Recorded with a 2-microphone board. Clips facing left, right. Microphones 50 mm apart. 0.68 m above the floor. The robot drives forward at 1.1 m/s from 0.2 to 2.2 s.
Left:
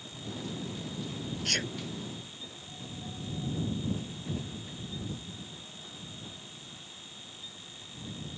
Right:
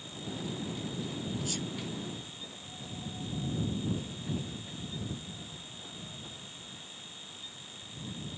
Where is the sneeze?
60° left (ahead or behind).